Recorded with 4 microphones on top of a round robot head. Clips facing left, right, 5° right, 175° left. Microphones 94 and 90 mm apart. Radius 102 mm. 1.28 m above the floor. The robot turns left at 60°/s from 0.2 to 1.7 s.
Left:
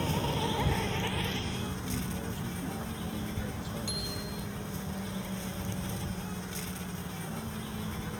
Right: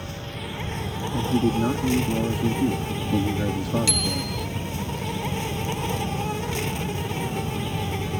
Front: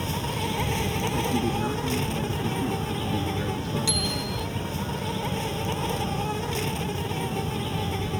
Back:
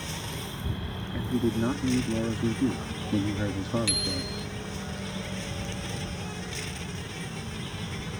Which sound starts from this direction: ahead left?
An insect, at 0.0 s.